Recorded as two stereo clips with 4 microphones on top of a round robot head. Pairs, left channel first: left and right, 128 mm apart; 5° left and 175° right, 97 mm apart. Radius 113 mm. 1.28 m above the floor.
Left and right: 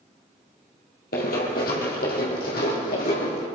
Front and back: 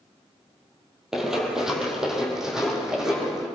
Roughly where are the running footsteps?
Left.